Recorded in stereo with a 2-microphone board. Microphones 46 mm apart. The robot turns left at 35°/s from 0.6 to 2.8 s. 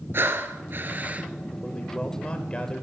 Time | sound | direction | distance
0.1 | breathing | 55° right (ahead or behind) | 1.0 m
1.6 | a man speaking | 15° left (ahead or behind) | 1.6 m